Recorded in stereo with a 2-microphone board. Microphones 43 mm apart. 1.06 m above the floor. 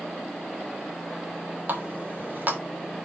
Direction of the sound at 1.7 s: 45° right (ahead or behind).